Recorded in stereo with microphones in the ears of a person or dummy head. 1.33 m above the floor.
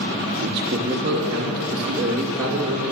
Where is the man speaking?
50° right (ahead or behind), 1.0 m; by 2.9 s 10° right (ahead or behind), 3 m.